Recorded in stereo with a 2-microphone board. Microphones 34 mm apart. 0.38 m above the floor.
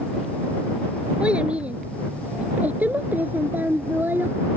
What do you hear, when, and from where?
1.2 s a child speaking: 30° right (ahead or behind); by 4.3 s 75° right (ahead or behind)